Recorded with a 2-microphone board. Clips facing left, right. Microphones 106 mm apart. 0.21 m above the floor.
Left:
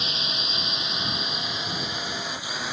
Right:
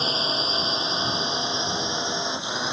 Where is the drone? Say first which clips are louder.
Right 7 dB; 35° right (ahead or behind); by 2.7 s 20° right (ahead or behind).